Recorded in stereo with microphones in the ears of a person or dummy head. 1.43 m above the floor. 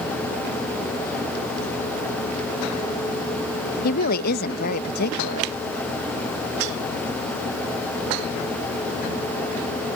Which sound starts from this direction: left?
A woman speaking, at 3.8 s.